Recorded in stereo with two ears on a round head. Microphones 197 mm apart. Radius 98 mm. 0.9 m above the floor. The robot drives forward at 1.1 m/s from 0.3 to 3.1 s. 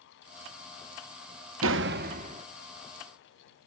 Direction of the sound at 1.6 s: 70° right (ahead or behind).